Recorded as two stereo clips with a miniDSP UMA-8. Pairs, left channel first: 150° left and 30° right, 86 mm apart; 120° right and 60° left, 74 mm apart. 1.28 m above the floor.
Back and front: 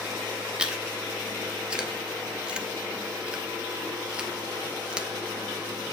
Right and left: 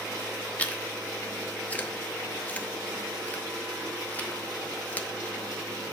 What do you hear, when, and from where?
0.6 s chewing: 95° right, 0.7 m